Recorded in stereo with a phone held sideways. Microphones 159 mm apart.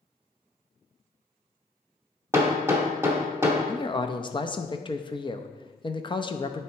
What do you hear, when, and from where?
2.3 s hammering: 15° right (ahead or behind), 1.2 m
3.7 s a man speaking: 30° left (ahead or behind), 0.5 m